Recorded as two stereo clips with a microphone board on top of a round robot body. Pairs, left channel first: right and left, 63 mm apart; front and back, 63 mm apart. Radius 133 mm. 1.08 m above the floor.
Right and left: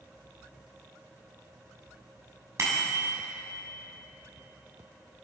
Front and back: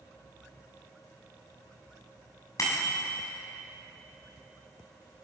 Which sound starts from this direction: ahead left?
A bicycle bell, at 2.6 s.